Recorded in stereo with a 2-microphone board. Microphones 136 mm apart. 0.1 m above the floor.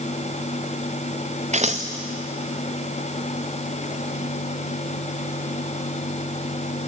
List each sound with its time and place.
1.5 s scissors: 55° right (ahead or behind), 1.7 m